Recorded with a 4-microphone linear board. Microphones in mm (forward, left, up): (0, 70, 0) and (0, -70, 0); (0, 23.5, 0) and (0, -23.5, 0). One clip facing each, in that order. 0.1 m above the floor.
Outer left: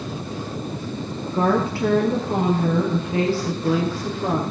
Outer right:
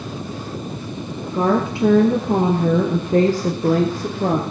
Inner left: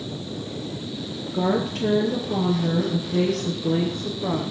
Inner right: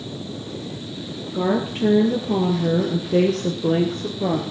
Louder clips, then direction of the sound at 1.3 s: Outer right 2 dB, inner right 1 dB; 15° right (ahead or behind).